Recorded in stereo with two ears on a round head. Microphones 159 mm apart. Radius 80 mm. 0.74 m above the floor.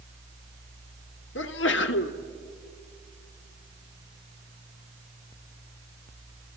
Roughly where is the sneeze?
Left.